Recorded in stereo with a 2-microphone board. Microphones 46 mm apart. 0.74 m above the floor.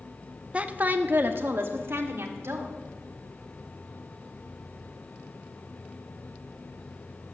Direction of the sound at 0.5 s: 25° right (ahead or behind).